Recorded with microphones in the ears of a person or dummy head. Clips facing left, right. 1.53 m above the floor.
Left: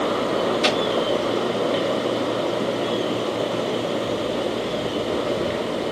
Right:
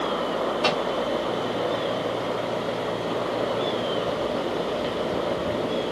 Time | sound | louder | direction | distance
0.6 | a microwave | left 3 dB | 20° left (ahead or behind) | 0.5 m